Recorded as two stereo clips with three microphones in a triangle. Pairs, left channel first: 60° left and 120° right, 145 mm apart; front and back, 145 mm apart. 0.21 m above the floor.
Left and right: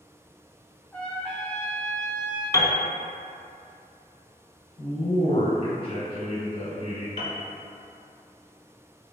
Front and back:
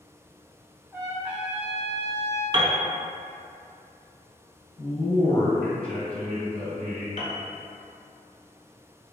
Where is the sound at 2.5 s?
125° left, 0.6 m.